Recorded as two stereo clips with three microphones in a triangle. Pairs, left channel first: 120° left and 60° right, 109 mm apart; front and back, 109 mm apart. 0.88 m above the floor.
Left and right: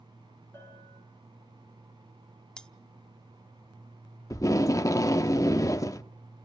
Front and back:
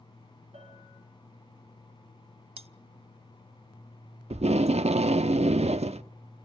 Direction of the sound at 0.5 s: 175° right.